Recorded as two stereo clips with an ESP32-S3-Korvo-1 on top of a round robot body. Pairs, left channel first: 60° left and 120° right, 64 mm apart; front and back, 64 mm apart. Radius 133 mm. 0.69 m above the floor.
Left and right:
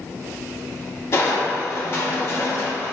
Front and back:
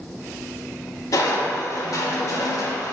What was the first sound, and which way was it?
Crushing, 20° left.